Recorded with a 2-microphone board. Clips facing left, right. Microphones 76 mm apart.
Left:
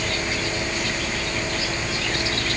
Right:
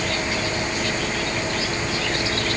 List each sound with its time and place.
Only background noise.